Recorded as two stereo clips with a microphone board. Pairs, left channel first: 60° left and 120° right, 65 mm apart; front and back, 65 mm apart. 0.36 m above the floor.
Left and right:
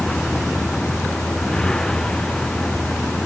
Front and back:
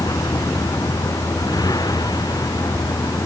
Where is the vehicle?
20° right.